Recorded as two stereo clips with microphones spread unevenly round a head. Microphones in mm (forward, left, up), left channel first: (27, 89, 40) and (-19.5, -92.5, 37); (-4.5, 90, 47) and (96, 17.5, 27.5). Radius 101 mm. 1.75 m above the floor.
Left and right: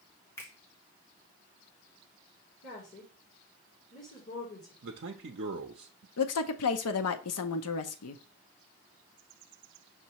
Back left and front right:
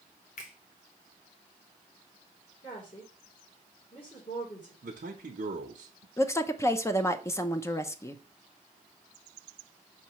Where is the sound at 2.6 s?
105° left, 2.5 m.